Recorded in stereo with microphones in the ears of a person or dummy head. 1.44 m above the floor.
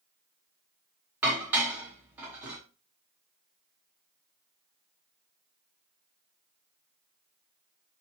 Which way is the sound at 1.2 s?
15° right (ahead or behind).